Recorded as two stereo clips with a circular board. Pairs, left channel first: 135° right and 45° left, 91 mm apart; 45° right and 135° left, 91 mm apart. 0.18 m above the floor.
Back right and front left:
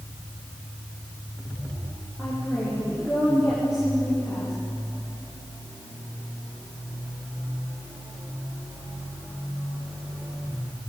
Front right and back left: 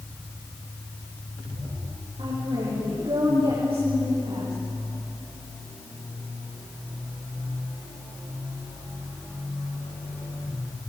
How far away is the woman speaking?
About 8.5 m.